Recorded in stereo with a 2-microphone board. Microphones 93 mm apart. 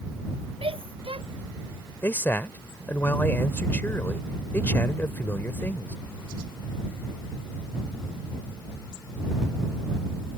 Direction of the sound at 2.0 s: 25° left (ahead or behind).